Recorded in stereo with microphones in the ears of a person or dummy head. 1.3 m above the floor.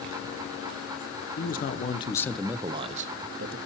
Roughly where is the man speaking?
Left.